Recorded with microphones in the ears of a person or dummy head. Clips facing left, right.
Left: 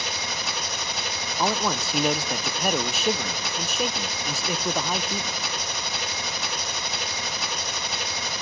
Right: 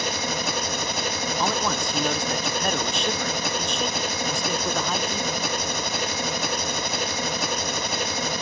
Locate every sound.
0.0 s an engine running: 45° right (ahead or behind), 1.0 m
1.4 s a man speaking: 10° left (ahead or behind), 0.5 m